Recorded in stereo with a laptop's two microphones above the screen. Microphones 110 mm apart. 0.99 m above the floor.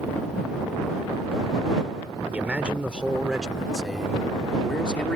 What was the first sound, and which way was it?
A man speaking, 10° right (ahead or behind).